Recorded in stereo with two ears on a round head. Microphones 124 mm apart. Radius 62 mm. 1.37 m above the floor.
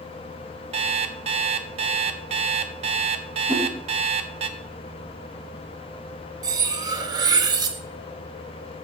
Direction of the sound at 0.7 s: 45° right (ahead or behind).